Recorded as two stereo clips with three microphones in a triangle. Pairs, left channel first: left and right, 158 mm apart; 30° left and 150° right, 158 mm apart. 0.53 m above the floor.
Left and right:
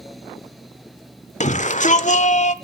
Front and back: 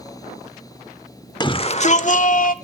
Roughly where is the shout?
Left.